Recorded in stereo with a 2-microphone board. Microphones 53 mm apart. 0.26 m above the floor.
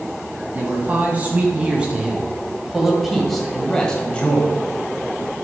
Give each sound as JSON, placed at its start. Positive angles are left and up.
{"t": 0.5, "sound": "a man speaking", "side_deg": -35, "distance_m": 2.5}